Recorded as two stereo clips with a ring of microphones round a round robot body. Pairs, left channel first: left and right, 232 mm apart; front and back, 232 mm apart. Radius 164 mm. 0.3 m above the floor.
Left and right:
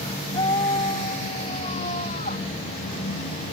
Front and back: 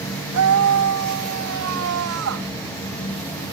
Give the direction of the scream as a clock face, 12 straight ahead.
6 o'clock.